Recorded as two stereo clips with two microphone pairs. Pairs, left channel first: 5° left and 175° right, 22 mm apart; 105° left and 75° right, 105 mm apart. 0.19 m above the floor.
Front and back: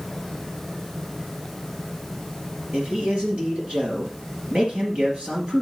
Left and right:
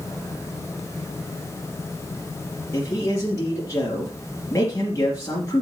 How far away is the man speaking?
About 3.5 m.